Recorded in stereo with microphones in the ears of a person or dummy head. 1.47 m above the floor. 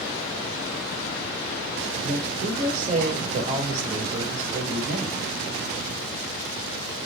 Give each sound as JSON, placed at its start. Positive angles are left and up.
{"t": 2.0, "sound": "a woman speaking", "side_deg": -40, "distance_m": 4.5}